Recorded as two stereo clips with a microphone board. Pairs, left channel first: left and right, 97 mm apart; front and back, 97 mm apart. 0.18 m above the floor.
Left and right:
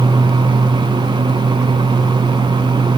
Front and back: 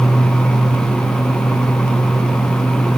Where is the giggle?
I don't hear a giggle.